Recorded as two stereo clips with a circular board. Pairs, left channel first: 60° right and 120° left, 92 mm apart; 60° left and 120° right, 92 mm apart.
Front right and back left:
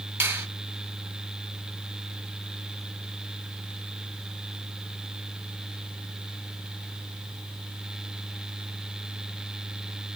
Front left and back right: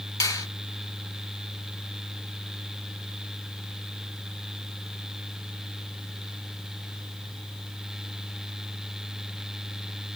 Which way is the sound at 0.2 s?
75° left.